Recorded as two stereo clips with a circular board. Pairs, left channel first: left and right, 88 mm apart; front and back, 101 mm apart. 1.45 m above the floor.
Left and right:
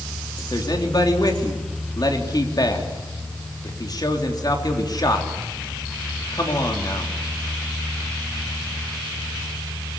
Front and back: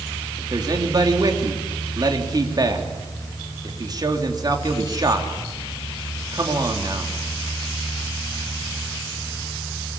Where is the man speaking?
130° left, 3.5 m.